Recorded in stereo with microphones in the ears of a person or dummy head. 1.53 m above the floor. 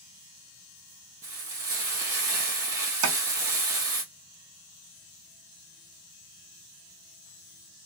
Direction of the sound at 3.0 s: 70° right (ahead or behind).